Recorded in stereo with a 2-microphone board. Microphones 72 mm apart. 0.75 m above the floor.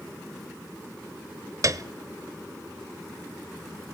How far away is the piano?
About 0.6 m.